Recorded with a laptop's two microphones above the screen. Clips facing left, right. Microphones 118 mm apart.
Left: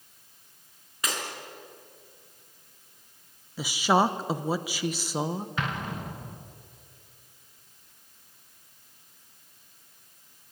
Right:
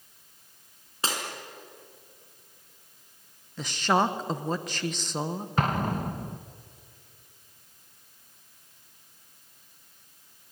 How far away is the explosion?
About 1.0 m.